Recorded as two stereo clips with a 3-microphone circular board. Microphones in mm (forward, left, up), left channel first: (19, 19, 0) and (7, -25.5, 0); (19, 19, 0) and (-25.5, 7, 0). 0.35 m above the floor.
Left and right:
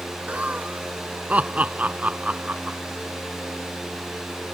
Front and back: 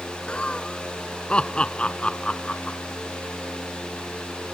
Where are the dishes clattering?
No dishes clattering in this recording.